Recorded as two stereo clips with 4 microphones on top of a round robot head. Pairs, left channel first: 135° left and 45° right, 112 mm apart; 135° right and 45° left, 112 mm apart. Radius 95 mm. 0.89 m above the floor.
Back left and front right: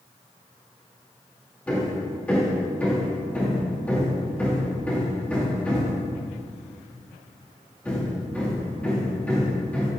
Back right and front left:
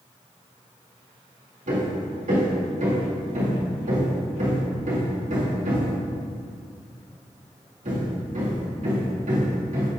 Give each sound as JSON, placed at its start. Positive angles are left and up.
{"t": 1.7, "sound": "hammering", "azimuth_deg": 60, "distance_m": 2.5}